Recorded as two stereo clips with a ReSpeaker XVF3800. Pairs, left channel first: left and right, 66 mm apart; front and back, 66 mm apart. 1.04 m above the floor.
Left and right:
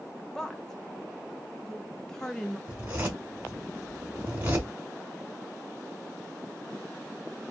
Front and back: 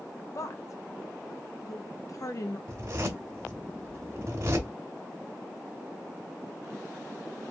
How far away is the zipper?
About 1.5 m.